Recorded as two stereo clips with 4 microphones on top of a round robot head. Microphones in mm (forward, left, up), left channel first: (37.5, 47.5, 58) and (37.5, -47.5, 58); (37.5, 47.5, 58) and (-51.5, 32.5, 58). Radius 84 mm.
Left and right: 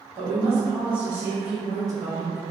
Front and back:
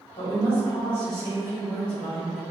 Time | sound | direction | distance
0.1 | a woman speaking | 45° right | 1.6 m